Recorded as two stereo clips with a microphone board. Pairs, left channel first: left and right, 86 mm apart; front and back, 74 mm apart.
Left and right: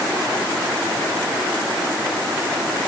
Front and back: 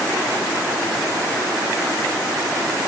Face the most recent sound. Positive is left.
No sound to turn to.